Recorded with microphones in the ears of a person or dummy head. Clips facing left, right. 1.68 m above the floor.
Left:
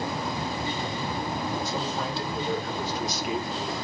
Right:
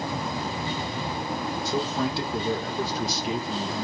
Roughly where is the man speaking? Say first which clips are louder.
Right 4 dB; right.